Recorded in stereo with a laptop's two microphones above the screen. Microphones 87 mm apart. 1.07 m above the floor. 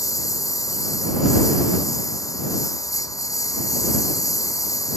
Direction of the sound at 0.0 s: 40° left (ahead or behind).